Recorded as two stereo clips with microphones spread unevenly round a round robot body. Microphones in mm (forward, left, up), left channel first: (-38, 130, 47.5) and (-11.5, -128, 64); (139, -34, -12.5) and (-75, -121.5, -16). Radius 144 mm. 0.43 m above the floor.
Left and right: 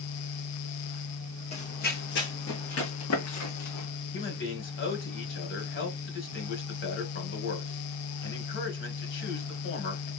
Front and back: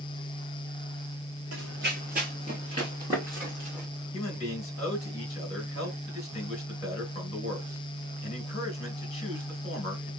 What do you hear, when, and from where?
1.5 s running footsteps: 160° left, 1.2 m; by 3.9 s 115° left, 2.5 m
4.1 s a man speaking: 85° left, 2 m